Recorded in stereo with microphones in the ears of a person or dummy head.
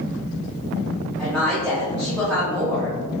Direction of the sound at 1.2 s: Centre (ahead or behind).